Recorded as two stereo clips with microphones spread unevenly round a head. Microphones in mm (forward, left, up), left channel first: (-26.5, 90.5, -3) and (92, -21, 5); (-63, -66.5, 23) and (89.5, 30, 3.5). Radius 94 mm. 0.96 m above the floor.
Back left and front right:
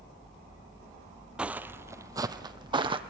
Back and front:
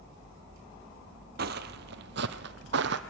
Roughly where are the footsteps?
Ahead left.